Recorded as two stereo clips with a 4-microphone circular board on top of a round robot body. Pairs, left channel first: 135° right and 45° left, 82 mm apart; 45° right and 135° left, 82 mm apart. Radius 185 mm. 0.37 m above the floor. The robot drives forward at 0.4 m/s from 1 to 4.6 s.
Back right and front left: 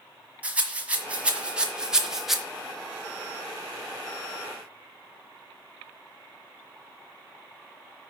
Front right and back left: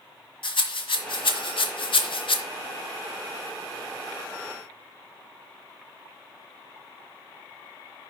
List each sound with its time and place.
0.4 s a rattle: 30° right, 1.7 m; by 2.4 s 40° right, 1.2 m